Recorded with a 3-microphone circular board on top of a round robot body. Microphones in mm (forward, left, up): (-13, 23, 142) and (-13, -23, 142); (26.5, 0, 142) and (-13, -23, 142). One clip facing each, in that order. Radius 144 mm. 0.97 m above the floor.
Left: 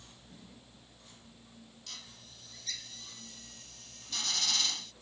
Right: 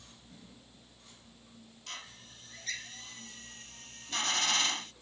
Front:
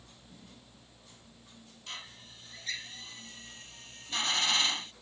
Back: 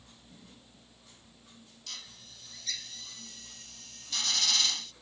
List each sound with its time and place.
1.9 s a drill: 35° right